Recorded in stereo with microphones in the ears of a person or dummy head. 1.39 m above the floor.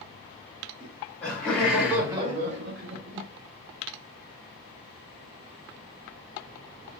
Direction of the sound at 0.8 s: 10° left (ahead or behind).